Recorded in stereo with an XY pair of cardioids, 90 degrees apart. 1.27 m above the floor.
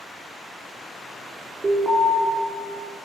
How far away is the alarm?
About 4.5 m.